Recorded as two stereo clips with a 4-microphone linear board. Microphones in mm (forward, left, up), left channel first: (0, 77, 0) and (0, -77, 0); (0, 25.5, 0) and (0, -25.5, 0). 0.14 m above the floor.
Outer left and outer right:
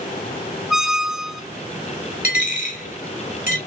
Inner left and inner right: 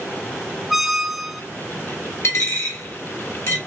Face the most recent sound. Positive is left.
turn(degrees=60)  # may be behind; listen again after turning